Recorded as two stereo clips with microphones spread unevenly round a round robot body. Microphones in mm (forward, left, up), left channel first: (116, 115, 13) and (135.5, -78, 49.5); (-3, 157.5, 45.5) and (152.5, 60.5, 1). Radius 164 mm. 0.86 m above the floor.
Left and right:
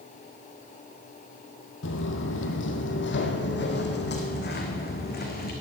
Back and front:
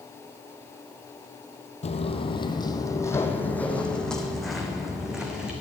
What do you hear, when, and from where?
1.8 s footsteps: 125° left, 1.4 m; by 5.5 s 55° left, 3.5 m